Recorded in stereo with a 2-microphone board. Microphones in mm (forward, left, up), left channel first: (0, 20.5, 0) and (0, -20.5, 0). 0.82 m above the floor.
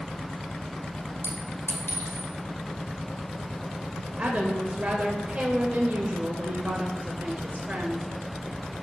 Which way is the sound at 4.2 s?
35° right (ahead or behind).